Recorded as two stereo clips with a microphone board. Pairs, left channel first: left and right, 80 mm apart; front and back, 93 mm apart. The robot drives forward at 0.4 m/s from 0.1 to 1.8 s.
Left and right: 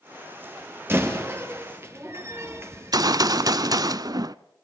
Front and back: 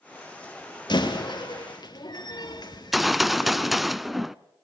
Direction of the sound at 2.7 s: 90° right.